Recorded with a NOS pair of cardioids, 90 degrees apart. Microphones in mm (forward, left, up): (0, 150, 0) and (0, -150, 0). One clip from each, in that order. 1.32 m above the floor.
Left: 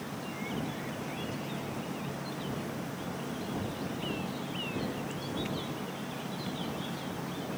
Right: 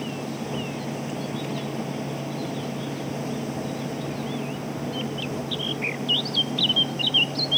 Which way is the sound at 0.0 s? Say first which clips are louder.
Right 7 dB; 70° right.